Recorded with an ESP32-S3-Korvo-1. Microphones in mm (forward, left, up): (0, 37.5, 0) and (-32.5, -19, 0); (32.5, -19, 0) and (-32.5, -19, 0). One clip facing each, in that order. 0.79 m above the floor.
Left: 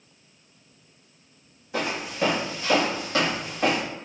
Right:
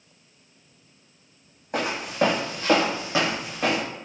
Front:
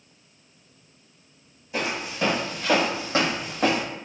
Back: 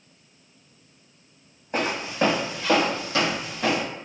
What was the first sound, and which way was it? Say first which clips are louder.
Footsteps: right 3 dB, back 3 dB; 140° right.